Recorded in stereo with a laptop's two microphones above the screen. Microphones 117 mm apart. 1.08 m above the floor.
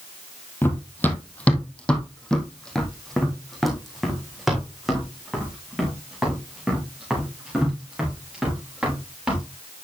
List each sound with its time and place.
0.6 s running footsteps: 20° left (ahead or behind), 1.6 m; by 9.4 s 5° right (ahead or behind), 6 m